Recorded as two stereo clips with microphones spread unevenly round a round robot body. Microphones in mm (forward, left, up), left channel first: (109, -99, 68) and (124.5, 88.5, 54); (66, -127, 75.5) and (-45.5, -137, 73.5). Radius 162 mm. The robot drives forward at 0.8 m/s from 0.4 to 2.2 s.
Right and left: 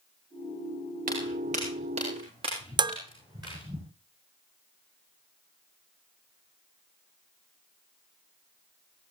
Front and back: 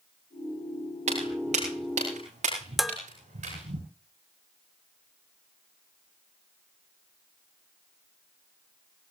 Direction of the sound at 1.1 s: 145° left.